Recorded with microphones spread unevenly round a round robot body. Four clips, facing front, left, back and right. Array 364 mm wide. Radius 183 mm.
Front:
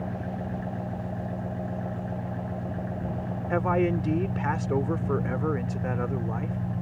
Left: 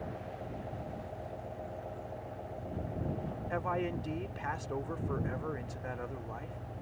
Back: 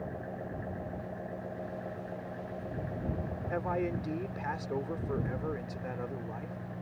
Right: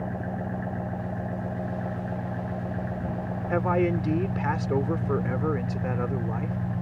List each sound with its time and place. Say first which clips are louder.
0.0 s an engine running: right 10 dB, front 6 dB; 65° right
3.5 s a man speaking: right 11 dB, front 9 dB; 60° right